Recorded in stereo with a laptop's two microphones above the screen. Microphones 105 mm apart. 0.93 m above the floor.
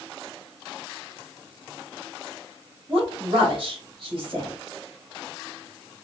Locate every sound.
2.9 s a woman speaking: 50° right (ahead or behind), 2.5 m